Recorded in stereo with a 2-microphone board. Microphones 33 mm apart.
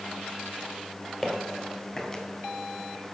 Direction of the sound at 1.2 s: 10° right (ahead or behind).